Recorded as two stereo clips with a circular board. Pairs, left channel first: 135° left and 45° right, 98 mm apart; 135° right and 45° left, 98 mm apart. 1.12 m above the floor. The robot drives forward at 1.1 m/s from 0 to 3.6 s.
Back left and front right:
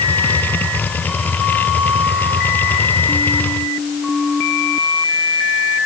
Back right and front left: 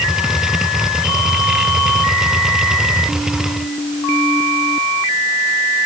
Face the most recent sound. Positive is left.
No sound to turn to.